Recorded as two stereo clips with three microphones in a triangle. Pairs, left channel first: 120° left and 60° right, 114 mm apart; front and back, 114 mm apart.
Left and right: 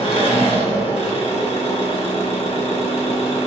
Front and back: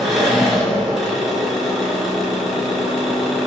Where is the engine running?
95° left, 1.5 m.